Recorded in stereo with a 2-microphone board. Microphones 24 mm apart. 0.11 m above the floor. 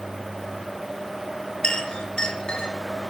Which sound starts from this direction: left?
A clink, at 1.6 s.